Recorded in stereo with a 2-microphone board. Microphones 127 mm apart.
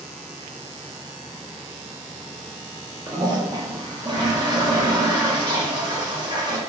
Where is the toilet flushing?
35° right (ahead or behind), 0.7 m.